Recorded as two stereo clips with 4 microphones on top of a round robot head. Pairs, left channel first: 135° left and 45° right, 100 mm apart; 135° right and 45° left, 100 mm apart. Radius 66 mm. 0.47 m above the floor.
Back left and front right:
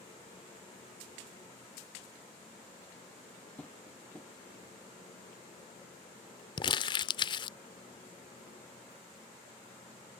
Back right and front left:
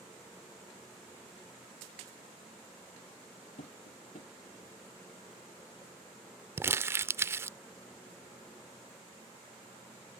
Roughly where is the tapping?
Behind right.